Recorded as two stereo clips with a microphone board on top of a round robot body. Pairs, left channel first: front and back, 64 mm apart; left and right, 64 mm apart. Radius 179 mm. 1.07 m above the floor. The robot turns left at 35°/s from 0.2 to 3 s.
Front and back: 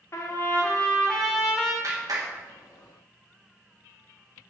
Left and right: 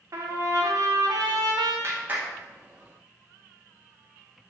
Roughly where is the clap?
Behind right.